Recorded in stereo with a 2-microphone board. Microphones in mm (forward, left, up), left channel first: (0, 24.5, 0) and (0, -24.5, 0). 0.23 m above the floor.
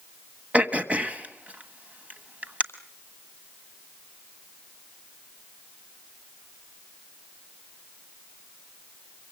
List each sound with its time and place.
0.5 s throat clearing: 30° right (ahead or behind), 1.4 m